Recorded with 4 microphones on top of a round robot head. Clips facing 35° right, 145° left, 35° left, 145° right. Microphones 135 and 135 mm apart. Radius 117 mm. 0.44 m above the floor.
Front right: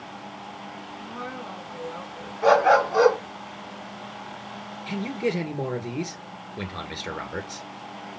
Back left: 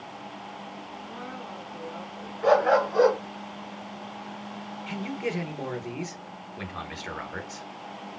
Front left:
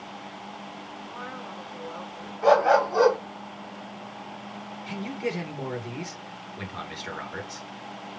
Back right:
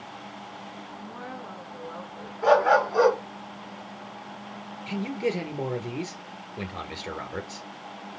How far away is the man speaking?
About 1.9 m.